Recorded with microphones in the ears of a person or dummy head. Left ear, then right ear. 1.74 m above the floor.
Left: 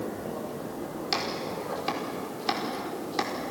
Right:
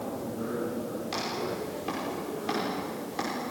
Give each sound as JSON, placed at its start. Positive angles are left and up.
{"t": 1.1, "sound": "chopping", "side_deg": 35, "distance_m": 5.5}